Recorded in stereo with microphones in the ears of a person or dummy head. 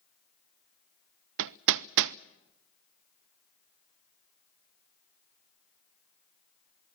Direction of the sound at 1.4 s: 60° right (ahead or behind).